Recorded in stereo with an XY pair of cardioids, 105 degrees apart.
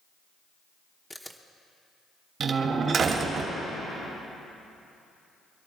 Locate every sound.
1.1 s a camera shutter: 5° left, 1.0 m
2.4 s a door slam: 55° right, 2 m